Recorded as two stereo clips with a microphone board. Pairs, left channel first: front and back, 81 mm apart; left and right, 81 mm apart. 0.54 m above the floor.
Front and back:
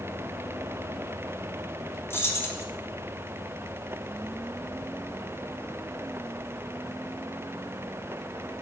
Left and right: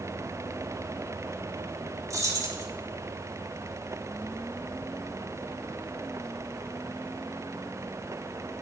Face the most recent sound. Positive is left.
turn(degrees=-55)